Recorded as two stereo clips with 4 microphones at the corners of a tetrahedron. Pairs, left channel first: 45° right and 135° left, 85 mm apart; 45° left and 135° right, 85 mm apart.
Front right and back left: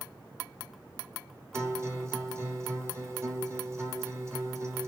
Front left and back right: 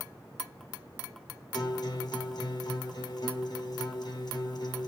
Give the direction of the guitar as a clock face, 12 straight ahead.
9 o'clock.